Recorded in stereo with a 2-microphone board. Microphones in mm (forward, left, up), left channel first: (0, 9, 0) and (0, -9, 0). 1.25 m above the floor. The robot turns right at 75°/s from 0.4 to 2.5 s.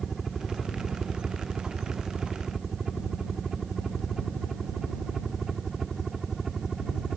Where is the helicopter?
10° right (ahead or behind).